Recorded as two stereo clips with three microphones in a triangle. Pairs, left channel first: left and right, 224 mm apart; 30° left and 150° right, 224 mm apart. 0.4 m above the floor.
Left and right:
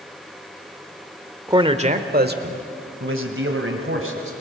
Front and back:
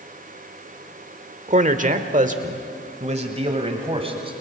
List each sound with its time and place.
1.5 s a man speaking: 150° right, 1.0 m; by 4.3 s 85° right, 2.5 m